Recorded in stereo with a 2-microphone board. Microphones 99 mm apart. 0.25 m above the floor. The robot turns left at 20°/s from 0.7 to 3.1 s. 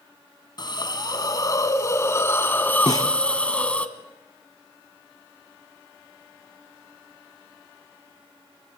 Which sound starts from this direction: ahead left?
A hiss, at 0.6 s.